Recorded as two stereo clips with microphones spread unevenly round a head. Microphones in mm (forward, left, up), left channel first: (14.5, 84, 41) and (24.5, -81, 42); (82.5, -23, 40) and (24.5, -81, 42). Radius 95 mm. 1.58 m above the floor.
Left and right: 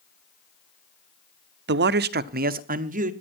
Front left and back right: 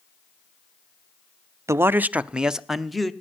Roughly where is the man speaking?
Right.